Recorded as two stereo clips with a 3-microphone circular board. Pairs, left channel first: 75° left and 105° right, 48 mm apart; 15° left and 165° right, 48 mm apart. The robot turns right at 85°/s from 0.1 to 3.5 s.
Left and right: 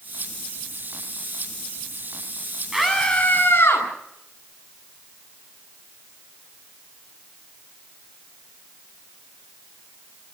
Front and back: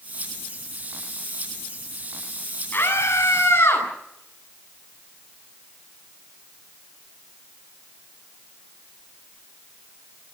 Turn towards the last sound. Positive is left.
turn(degrees=35)